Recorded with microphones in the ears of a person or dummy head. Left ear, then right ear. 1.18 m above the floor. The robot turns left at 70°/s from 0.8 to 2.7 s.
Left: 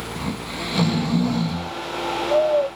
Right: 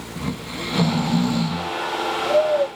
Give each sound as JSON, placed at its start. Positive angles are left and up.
{"t": 0.2, "sound": "snoring", "azimuth_deg": 10, "distance_m": 0.6}